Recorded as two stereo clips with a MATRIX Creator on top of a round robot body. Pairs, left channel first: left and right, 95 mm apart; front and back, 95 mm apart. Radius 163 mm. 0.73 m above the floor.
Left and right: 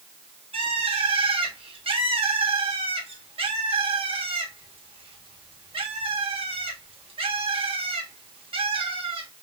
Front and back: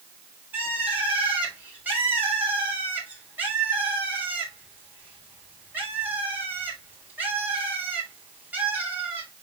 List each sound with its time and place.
0.5 s a bird: 105° right, 4 m